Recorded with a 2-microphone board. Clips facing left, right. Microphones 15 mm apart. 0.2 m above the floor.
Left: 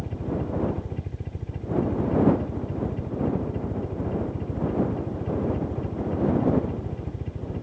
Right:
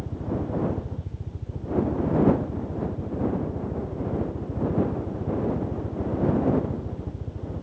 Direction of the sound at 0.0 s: 65° left (ahead or behind).